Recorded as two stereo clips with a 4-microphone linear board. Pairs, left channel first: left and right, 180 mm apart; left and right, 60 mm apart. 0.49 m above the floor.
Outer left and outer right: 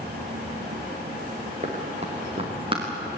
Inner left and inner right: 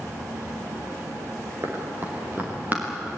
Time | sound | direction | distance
1.6 | running footsteps | 45° right (ahead or behind) | 5 m